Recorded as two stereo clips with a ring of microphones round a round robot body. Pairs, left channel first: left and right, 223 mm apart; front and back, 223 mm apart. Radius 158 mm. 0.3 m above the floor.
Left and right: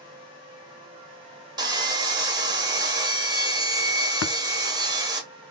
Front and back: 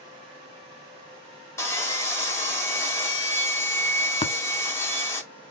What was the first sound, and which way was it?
Sawing, 55° right.